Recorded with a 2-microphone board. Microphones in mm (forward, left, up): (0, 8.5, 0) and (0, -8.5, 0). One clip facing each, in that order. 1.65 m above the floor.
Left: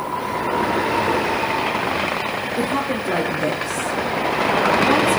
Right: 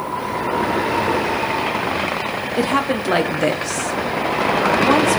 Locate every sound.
2.6 s a woman speaking: 55° right (ahead or behind), 0.7 m